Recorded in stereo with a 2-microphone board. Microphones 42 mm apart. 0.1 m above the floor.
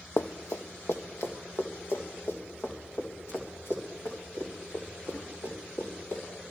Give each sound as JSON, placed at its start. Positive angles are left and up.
{"t": 0.2, "sound": "running footsteps", "side_deg": 70, "distance_m": 0.7}